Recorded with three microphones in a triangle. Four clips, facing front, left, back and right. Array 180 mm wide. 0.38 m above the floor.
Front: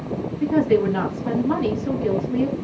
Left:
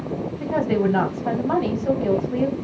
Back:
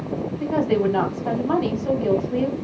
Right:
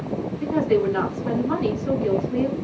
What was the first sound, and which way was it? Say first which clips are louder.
A woman speaking: right 1 dB, front 3 dB; 125° left.